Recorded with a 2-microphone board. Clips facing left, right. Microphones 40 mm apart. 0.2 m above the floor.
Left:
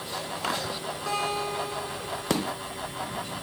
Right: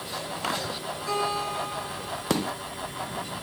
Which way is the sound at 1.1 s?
70° left (ahead or behind).